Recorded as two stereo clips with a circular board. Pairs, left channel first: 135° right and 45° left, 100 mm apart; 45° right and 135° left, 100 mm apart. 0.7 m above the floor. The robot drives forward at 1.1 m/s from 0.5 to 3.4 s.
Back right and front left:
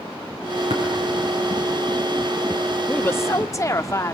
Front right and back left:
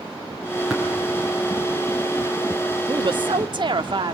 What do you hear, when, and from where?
0.7 s tapping: 50° left, 9.5 m
2.9 s a woman speaking: 150° left, 0.6 m; by 4.2 s 165° left, 1.1 m